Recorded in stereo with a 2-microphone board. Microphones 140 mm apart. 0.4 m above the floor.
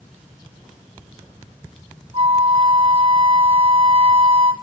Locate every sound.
2.1 s a flute: 45° right (ahead or behind), 1.2 m